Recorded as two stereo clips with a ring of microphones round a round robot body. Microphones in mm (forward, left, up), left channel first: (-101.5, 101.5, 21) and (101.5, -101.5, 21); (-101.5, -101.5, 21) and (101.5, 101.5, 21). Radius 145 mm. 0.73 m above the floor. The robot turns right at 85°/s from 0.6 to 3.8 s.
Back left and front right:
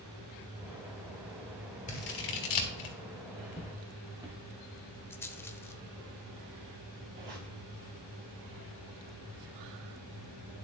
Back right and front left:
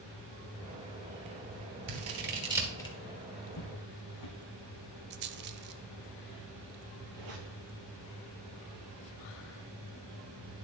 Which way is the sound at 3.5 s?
160° right.